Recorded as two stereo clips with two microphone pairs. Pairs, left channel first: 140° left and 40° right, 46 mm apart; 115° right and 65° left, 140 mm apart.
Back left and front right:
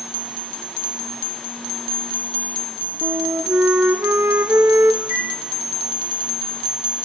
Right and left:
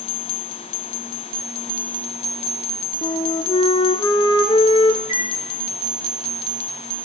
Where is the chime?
130° left, 5.5 m.